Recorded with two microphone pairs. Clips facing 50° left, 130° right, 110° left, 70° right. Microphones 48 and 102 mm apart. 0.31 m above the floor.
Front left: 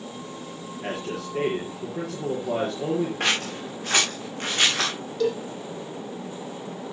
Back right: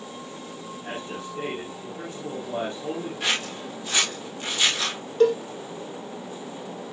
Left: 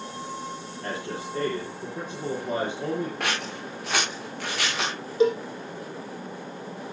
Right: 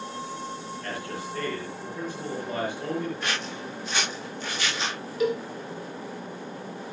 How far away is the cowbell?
About 2.5 m.